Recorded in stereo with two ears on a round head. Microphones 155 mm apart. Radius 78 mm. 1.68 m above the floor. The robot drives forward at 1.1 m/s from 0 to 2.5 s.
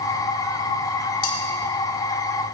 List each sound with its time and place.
1.2 s cutlery clinking: 55° left (ahead or behind), 4 m